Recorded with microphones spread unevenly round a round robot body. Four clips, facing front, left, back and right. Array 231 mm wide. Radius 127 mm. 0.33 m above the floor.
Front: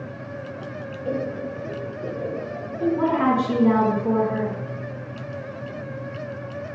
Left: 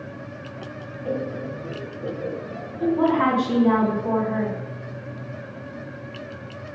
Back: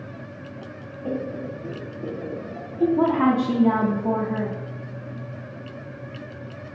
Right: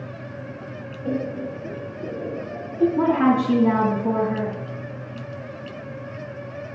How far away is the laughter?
About 2.5 m.